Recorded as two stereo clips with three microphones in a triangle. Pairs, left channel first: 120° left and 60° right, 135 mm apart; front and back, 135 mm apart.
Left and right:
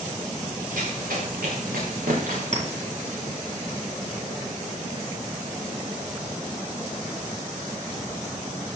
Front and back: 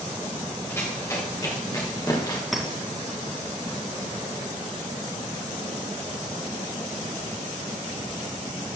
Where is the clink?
90° right, 3 m.